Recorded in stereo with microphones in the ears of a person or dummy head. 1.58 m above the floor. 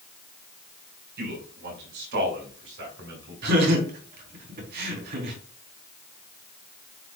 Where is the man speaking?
70° right (ahead or behind), 5 m; by 3.8 s 75° right (ahead or behind), 7.5 m.